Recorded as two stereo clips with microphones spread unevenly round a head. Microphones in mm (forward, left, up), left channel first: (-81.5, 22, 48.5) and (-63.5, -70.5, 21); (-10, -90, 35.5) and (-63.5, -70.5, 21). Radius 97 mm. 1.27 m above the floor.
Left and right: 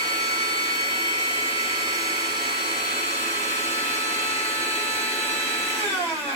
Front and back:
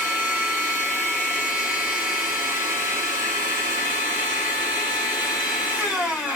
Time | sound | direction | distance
0.0 | a machine running | 35° left | 2 m